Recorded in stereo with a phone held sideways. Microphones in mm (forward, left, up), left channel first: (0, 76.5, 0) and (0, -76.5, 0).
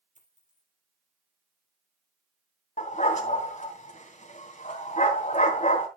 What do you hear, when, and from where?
0.1 s a dropped coin: 60° right (ahead or behind), 3.5 m
2.8 s a dog barking: 50° left (ahead or behind), 2.5 m